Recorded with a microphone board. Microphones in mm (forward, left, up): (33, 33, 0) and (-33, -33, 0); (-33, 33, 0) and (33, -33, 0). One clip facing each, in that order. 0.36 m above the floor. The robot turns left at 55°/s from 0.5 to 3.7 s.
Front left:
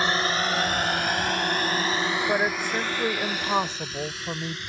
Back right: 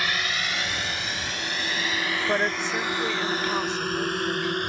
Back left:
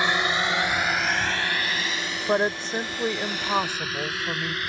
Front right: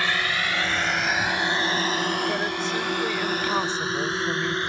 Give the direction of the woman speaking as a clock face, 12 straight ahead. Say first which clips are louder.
Back right 3 dB, back left 3 dB; 7 o'clock.